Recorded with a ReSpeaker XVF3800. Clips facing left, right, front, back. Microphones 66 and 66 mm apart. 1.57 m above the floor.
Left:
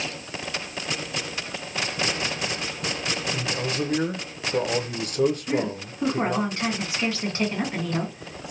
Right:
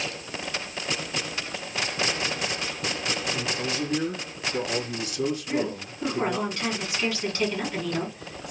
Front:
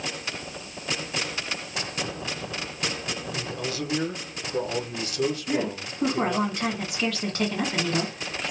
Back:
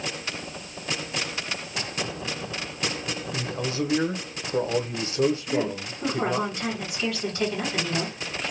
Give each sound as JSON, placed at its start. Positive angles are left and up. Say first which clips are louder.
{"t": 3.3, "sound": "a man speaking", "louder": "left 1 dB, back 4 dB", "azimuth_deg": 120, "distance_m": 0.7}
{"t": 5.5, "sound": "a woman speaking", "louder": "left 2 dB, back 1 dB", "azimuth_deg": 25, "distance_m": 1.9}